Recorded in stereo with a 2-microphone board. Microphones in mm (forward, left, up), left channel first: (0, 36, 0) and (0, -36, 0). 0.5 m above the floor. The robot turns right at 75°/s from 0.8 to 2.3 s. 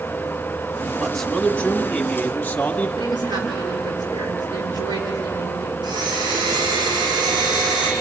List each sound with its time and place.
1.0 s a man speaking: centre (ahead or behind), 1.3 m; by 2.9 s 20° left (ahead or behind), 1.3 m
3.0 s a woman speaking: 80° right, 7 m
5.8 s a blender: 85° right, 5 m